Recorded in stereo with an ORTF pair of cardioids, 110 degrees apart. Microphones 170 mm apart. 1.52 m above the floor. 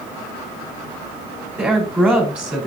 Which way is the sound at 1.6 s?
10° right.